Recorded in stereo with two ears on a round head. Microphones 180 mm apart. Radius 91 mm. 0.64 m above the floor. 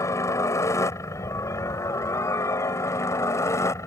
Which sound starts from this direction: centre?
A helicopter, at 0.0 s.